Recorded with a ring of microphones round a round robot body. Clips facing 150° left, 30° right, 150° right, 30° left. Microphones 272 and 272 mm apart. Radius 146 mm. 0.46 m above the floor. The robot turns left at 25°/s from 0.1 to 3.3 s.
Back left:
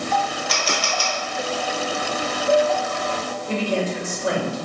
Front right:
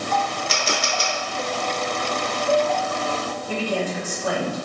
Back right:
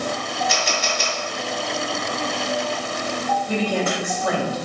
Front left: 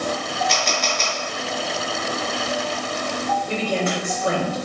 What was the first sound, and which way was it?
A camera shutter, 65° right.